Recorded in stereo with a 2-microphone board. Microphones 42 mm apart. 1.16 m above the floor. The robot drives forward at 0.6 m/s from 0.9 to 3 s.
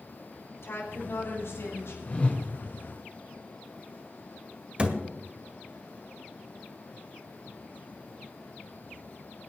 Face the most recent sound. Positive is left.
turn(degrees=-25)  # may be behind; listen again after turning